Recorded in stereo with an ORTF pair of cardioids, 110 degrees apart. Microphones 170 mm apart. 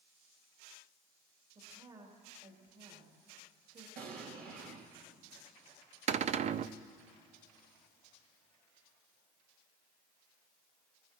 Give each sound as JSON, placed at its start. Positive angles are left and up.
{"t": 1.6, "sound": "a woman speaking", "azimuth_deg": -35, "distance_m": 3.5}
{"t": 4.0, "sound": "an explosion", "azimuth_deg": -60, "distance_m": 2.5}
{"t": 6.1, "sound": "a cupboard door", "azimuth_deg": -40, "distance_m": 0.6}